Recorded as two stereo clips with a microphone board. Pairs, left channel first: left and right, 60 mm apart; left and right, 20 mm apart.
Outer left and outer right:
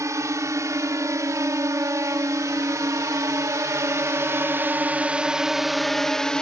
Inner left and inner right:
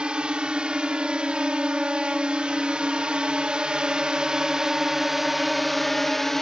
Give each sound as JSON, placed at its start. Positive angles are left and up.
{"t": 0.0, "sound": "a drone", "side_deg": -60}